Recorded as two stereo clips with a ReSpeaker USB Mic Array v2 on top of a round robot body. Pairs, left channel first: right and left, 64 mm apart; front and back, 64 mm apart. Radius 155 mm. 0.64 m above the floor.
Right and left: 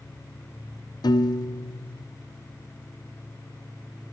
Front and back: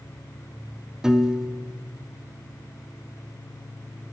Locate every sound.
1.0 s a piano: 100° right, 0.8 m